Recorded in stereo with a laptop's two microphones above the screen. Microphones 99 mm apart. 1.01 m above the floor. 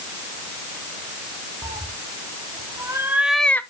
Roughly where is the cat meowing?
Right.